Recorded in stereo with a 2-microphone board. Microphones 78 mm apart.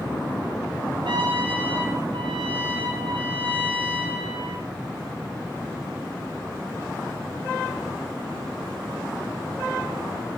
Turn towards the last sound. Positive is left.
turn(degrees=-85)